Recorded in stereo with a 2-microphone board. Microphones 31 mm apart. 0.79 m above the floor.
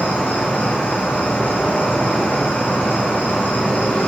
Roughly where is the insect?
Left.